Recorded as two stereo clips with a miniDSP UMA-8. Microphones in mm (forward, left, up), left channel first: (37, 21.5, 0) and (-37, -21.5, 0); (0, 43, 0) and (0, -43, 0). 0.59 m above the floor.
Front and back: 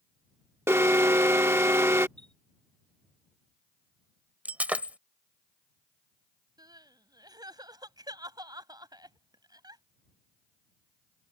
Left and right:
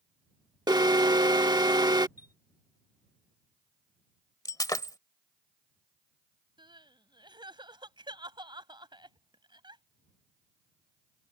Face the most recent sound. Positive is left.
turn(degrees=-115)